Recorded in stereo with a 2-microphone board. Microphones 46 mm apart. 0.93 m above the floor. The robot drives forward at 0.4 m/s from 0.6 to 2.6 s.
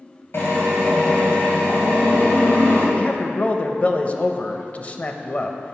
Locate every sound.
0.3 s a drill: 65° left (ahead or behind), 2.5 m; by 2.9 s 50° left (ahead or behind), 3 m
3.0 s a man speaking: 35° left (ahead or behind), 0.6 m